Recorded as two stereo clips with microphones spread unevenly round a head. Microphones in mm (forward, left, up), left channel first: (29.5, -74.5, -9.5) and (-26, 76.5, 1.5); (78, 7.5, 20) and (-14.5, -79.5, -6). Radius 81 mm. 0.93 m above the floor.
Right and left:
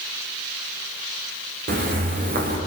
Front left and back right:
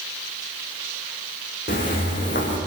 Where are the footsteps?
75° left, 5 m.